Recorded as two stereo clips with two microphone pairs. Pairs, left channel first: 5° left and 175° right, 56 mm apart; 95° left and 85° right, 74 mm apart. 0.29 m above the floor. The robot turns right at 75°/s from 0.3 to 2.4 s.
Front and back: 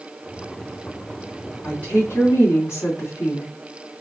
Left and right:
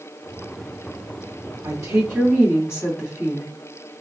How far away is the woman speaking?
About 2 m.